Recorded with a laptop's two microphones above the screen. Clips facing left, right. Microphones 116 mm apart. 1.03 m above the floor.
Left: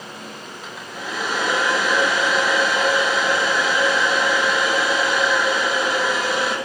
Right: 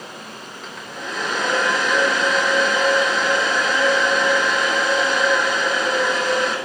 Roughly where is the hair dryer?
Centre.